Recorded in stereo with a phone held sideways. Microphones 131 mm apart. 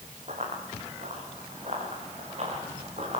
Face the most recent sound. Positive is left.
turn(degrees=-55)  # may be behind; listen again after turning